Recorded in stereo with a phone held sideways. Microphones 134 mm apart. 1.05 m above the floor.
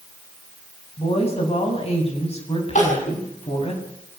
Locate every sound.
1.0 s a woman speaking: 50° left (ahead or behind), 7.5 m
2.8 s crying: 65° left (ahead or behind), 6.5 m